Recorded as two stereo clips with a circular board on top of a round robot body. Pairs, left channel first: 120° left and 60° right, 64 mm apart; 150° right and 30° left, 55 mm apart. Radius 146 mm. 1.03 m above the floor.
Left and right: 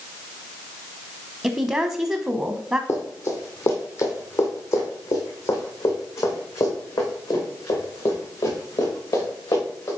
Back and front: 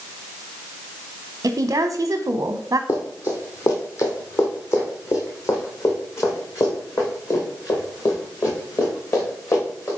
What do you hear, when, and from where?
1.4 s a woman speaking: 10° left, 0.8 m
2.9 s running footsteps: 175° left, 1.5 m; by 9.9 s 165° left, 5 m